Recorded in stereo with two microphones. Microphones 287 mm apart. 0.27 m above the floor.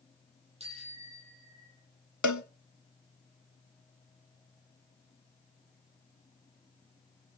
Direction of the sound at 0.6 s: 20° right (ahead or behind).